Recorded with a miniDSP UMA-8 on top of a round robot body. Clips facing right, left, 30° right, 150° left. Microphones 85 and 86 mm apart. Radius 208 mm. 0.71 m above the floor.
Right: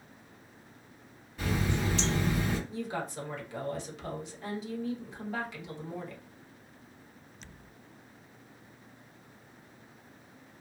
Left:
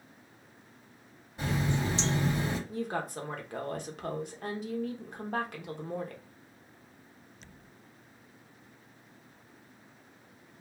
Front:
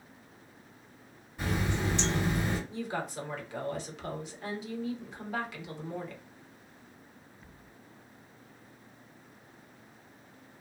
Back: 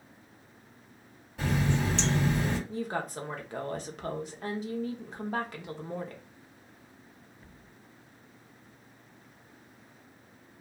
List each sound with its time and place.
1.4 s a running tap: 150° left, 2 m
2.7 s a woman speaking: 115° left, 1.0 m